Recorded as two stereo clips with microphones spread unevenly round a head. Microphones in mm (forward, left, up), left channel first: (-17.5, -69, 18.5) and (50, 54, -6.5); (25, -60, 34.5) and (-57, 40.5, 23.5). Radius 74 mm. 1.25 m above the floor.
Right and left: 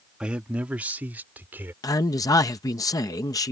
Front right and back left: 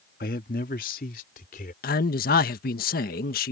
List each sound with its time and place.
0.2 s a man speaking: 25° right; by 1.7 s 15° right
1.8 s a man speaking: 50° right